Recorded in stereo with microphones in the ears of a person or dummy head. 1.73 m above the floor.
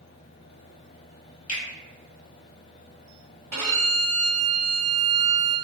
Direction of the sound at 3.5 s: 10° right (ahead or behind).